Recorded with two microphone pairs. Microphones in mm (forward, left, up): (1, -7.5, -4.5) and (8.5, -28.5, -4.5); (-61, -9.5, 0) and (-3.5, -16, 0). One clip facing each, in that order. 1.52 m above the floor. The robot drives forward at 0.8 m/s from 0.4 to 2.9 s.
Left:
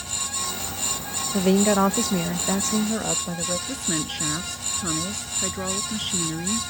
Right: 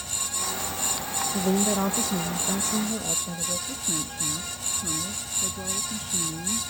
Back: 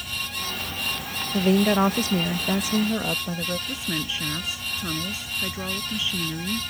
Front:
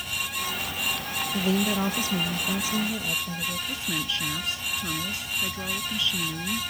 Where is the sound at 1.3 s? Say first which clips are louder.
Left 6 dB, back 6 dB; 125° left; by 3.6 s 150° left.